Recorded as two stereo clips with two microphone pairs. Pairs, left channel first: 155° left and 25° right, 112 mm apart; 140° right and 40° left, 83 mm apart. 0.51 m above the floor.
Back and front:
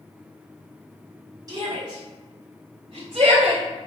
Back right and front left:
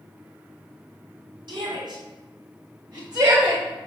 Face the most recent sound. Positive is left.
turn(degrees=0)